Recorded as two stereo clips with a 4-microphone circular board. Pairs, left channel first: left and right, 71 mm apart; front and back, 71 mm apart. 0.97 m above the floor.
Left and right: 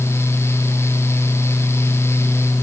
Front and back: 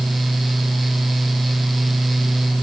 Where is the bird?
I don't hear a bird.